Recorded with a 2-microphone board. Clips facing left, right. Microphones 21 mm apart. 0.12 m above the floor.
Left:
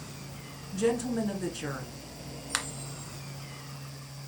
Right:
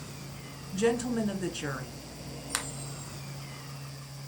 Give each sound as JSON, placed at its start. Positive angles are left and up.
{"t": 0.7, "sound": "a woman speaking", "side_deg": -20, "distance_m": 1.2}
{"t": 2.5, "sound": "a finger snap", "side_deg": 10, "distance_m": 1.2}